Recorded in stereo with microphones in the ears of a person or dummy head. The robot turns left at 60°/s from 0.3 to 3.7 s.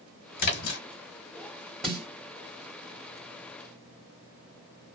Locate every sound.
0.4 s a splash: 45° left (ahead or behind), 1.2 m; by 0.8 s 70° left (ahead or behind), 1.2 m
1.8 s a snare drum: centre (ahead or behind), 1.7 m; by 2.1 s 15° left (ahead or behind), 1.7 m